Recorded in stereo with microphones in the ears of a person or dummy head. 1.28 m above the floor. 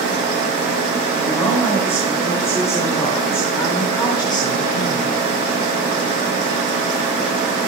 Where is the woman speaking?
10° left (ahead or behind), 5.5 m; by 5.2 s 25° left (ahead or behind), 3.5 m.